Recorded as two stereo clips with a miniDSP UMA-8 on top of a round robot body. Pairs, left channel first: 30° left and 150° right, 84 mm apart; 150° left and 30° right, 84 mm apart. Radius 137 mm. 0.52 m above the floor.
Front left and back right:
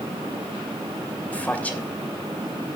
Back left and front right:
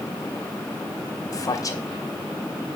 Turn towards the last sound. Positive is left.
turn(degrees=105)